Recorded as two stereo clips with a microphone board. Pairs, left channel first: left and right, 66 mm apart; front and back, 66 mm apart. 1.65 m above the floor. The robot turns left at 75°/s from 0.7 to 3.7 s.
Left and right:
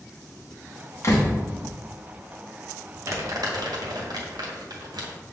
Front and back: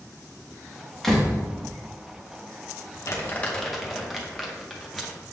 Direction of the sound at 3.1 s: 40° right.